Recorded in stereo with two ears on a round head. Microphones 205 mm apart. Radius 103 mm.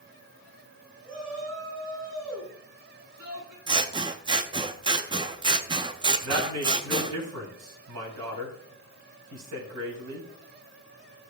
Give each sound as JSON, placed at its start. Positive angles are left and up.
{"t": 1.1, "sound": "a shout", "side_deg": -85, "distance_m": 7.5}
{"t": 3.7, "sound": "scissors", "side_deg": -20, "distance_m": 0.7}
{"t": 6.2, "sound": "a woman speaking", "side_deg": -85, "distance_m": 5.0}